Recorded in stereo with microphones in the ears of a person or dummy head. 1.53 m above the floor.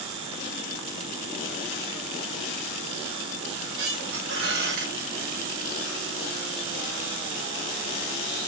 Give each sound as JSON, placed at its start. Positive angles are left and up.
{"t": 3.5, "sound": "a squeak", "side_deg": -70, "distance_m": 1.3}